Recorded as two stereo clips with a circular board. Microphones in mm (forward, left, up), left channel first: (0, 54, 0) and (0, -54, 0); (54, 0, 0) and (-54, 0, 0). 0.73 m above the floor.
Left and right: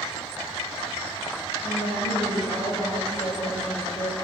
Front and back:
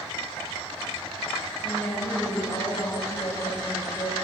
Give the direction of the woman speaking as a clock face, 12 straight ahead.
10 o'clock.